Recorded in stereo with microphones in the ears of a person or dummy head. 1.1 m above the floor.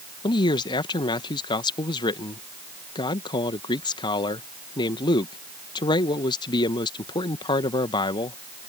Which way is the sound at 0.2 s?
20° left (ahead or behind).